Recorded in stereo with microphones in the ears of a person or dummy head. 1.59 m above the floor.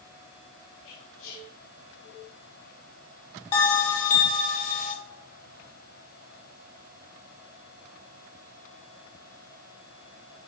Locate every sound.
0.8 s whispering: 75° left (ahead or behind), 0.9 m
3.5 s a bell: 35° left (ahead or behind), 0.7 m